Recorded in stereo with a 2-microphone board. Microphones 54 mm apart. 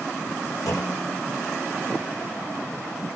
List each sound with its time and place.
0.7 s a clunk: 75° left (ahead or behind), 4 m